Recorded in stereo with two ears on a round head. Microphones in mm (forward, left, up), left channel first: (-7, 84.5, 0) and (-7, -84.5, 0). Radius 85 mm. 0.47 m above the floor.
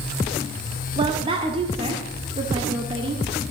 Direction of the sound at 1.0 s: 30° right (ahead or behind).